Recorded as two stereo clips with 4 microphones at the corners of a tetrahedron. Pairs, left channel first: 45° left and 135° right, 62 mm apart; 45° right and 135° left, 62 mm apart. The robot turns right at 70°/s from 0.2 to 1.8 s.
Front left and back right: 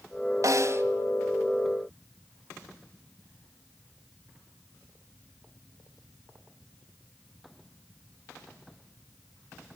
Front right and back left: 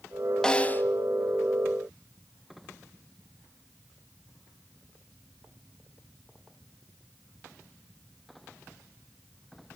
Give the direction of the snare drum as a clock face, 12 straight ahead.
4 o'clock.